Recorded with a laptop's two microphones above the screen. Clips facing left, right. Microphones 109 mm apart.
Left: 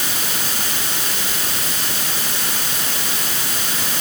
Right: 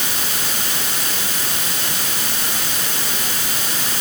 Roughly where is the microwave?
No microwave in this recording.